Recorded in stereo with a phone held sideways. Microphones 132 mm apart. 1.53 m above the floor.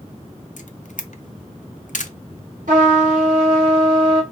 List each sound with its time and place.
0.6 s a camera shutter: 70° left (ahead or behind), 0.7 m
2.7 s a trumpet: 75° right (ahead or behind), 2.5 m